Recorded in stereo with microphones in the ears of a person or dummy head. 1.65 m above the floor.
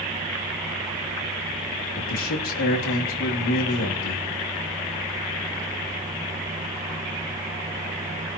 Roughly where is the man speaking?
Left.